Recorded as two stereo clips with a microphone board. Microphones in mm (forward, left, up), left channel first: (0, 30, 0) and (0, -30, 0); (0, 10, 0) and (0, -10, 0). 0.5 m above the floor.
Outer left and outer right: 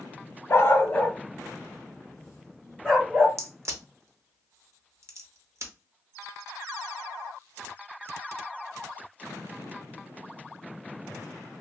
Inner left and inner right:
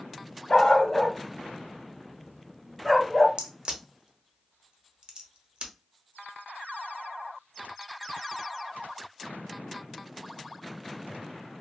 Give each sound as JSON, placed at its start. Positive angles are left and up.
{"t": 0.5, "sound": "a dog barking", "side_deg": 55, "distance_m": 0.6}
{"t": 3.4, "sound": "a crack", "side_deg": -55, "distance_m": 0.8}